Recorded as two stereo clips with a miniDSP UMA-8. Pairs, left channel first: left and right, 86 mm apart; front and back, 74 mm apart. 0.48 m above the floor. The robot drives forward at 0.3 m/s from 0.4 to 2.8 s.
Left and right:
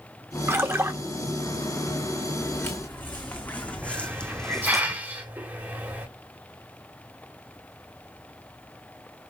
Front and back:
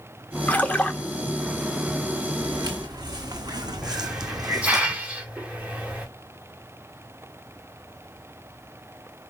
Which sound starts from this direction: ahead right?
A splash, at 0.5 s.